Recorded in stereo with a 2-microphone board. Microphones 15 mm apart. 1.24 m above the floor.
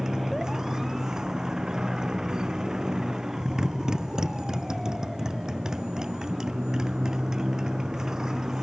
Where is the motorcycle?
50° right (ahead or behind).